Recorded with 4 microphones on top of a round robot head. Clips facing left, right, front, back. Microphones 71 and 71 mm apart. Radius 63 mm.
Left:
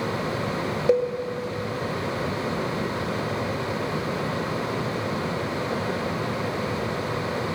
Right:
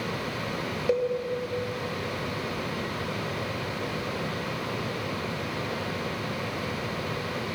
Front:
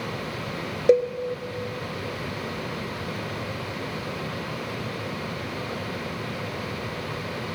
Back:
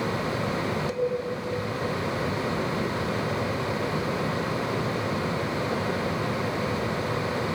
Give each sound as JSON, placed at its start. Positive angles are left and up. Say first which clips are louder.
{"t": 0.9, "sound": "a cowbell", "louder": "left 4 dB, front 13 dB", "azimuth_deg": 20, "distance_m": 1.0}